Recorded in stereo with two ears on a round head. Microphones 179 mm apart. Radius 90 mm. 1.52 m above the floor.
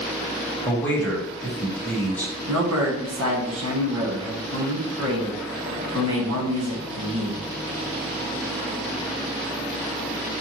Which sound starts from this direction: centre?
A man speaking, at 0.7 s.